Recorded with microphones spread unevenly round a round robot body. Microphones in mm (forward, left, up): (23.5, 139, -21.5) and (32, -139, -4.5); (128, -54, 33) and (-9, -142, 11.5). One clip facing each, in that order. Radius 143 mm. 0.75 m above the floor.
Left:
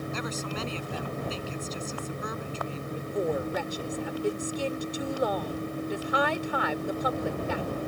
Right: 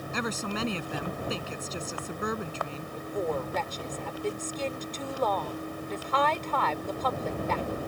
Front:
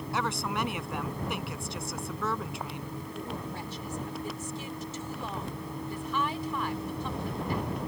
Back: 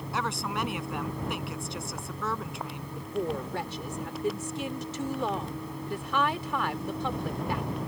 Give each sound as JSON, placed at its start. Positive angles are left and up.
{"t": 0.1, "sound": "a woman speaking", "azimuth_deg": -55}
{"t": 3.0, "sound": "a woman speaking", "azimuth_deg": 170}